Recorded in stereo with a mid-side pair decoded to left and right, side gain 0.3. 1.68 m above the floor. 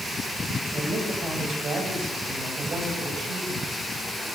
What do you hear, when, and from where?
0.7 s a woman speaking: 65° right, 8.5 m